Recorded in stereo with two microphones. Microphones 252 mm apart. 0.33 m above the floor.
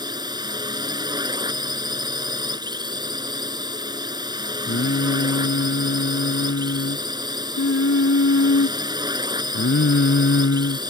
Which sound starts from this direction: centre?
A drone, at 0.0 s.